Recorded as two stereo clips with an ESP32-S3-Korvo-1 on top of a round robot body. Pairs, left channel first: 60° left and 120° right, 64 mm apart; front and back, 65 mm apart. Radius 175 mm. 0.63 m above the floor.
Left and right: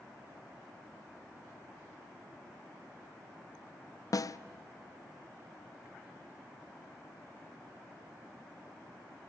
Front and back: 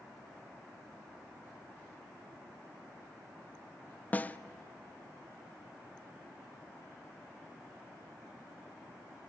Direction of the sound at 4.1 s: 60° left.